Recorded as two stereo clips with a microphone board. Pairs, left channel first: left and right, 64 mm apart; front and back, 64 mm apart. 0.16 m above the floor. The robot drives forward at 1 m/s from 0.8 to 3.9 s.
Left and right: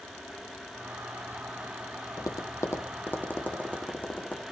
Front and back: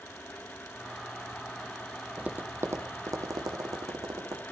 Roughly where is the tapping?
Left.